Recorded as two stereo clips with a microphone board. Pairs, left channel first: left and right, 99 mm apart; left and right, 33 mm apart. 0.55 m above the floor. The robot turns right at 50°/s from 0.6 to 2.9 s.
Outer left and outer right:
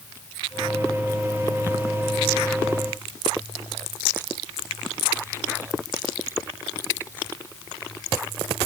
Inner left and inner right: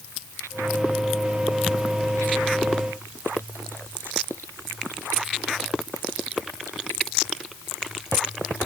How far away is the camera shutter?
I don't hear a camera shutter.